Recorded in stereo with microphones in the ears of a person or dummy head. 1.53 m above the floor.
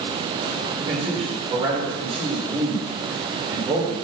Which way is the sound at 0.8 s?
25° right (ahead or behind).